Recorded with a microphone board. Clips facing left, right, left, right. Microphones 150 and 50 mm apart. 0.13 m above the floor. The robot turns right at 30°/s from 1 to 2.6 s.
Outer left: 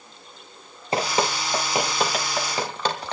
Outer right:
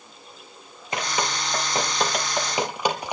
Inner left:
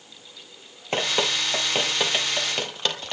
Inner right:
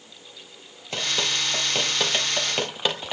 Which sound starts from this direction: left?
Dripping, at 0.9 s.